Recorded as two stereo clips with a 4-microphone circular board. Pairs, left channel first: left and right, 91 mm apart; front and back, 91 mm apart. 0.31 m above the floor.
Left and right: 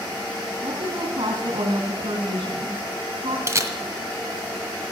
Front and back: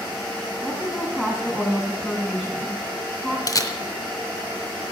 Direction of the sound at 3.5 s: 40° right.